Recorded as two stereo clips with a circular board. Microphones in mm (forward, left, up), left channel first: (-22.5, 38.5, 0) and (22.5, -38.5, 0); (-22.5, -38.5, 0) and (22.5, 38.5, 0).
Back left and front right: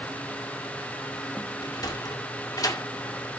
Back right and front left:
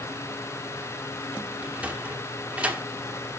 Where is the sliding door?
125° left, 1.7 m.